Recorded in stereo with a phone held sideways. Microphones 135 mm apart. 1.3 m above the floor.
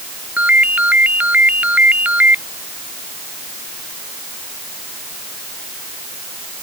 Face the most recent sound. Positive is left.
turn(degrees=-10)  # may be behind; listen again after turning